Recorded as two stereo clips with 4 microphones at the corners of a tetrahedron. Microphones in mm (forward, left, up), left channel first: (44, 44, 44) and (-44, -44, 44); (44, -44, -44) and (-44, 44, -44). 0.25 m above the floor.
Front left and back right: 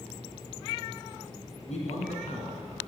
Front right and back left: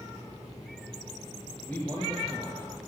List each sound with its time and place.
1.7 s a man speaking: 30° left, 3 m